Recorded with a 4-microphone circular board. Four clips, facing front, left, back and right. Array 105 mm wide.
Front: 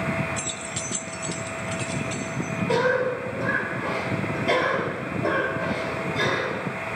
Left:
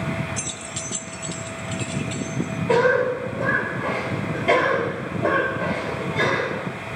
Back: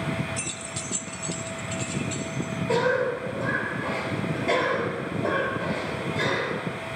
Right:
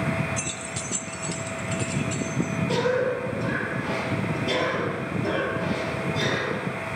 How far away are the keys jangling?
About 0.8 m.